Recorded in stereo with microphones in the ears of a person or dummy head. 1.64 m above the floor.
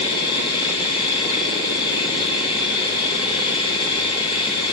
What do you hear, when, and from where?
0.0 s a machine running: 25° left (ahead or behind), 2 m